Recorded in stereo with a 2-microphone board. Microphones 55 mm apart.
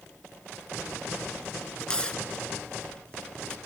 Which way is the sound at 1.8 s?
15° left (ahead or behind).